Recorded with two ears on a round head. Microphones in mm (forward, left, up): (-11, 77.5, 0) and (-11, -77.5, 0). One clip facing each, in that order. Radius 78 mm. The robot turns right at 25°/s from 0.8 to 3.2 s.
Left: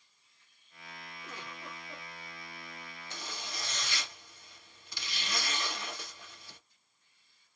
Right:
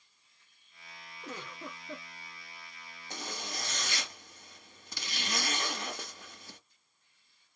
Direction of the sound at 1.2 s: 40° right (ahead or behind).